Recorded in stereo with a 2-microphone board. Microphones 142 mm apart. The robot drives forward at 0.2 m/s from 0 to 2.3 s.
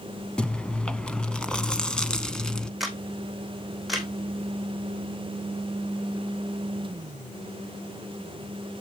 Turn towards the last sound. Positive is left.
turn(degrees=0)  # may be behind; listen again after turning